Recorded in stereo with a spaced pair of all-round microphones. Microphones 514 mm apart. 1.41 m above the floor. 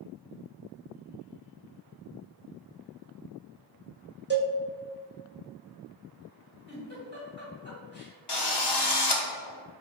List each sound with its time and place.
4.3 s a cowbell: 20° right (ahead or behind), 1.1 m
6.7 s a giggle: 20° left (ahead or behind), 1.6 m
8.3 s a drill: 50° left (ahead or behind), 0.8 m